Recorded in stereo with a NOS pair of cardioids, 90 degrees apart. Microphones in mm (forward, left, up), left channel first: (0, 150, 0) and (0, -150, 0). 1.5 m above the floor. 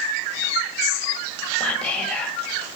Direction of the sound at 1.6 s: 5° left.